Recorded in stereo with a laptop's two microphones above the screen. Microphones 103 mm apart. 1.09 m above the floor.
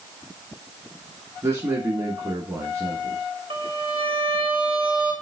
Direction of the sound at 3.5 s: 60° right (ahead or behind).